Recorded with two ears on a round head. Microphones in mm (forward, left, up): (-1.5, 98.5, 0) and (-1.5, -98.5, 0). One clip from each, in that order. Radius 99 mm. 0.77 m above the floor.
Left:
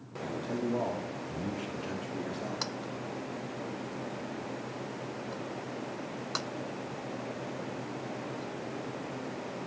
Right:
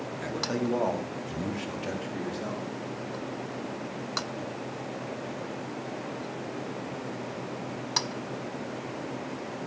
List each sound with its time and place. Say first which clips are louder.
0.2 s a man speaking: right 3 dB; 60° right (ahead or behind), 2 m; by 2.7 s centre (ahead or behind), 2.5 m